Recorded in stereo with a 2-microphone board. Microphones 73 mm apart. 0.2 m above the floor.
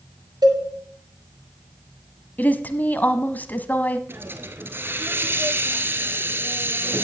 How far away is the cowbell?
About 2.5 m.